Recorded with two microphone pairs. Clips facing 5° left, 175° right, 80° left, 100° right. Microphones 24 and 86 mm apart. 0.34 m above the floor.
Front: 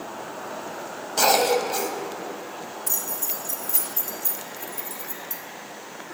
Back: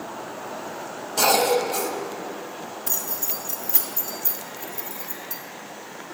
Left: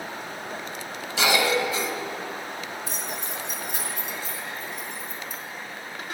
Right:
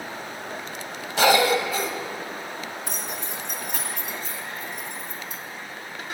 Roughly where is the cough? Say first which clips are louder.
Even, right 4 dB; ahead right.